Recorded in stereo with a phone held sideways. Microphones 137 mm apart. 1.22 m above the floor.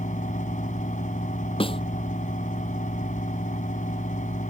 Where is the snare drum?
40° left (ahead or behind).